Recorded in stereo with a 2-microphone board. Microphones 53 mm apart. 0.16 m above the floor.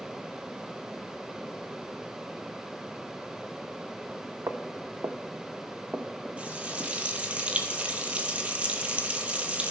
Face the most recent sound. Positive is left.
turn(degrees=-25)  # may be behind; listen again after turning